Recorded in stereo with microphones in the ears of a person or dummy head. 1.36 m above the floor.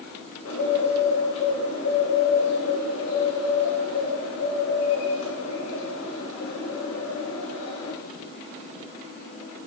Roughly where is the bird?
Left.